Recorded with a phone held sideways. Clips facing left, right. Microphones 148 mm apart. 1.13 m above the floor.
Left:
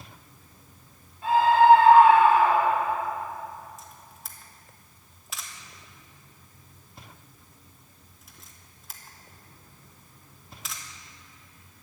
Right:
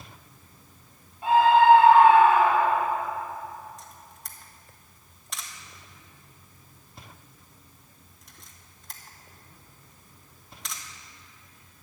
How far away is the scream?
About 5 m.